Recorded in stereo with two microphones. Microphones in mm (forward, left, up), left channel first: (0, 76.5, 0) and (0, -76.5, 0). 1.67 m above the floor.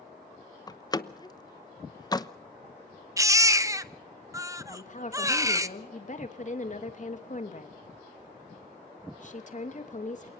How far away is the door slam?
About 0.9 m.